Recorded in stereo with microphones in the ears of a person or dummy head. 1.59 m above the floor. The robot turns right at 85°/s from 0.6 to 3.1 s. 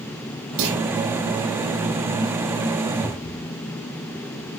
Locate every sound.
0.6 s a clunk: 75° right (ahead or behind), 8 m; by 0.8 s 60° right (ahead or behind), 8 m
3.0 s a cupboard door: 5° right (ahead or behind), 1.3 m; by 3.5 s centre (ahead or behind), 1.3 m